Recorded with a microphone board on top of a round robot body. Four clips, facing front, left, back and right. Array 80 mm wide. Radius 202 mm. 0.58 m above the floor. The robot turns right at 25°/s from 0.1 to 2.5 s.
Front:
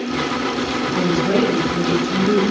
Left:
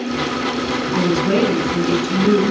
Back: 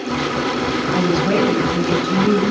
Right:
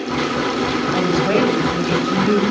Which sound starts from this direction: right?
A woman speaking, at 0.9 s.